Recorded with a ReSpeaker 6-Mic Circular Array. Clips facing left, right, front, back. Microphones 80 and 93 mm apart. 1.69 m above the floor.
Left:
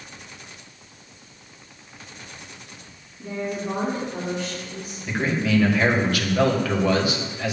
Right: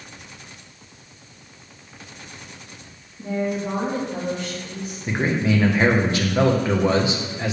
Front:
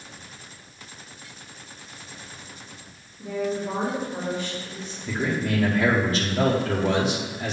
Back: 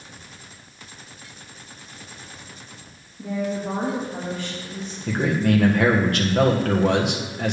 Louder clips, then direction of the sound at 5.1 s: Right 1 dB, back 5 dB; 155° right.